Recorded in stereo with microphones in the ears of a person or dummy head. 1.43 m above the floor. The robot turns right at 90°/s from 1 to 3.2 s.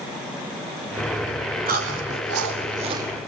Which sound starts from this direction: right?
Chewing, at 1.7 s.